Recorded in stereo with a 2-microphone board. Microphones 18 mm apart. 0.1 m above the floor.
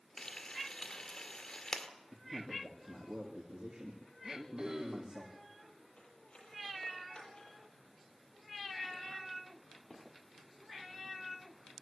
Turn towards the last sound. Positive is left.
turn(degrees=60)  # may be behind; listen again after turning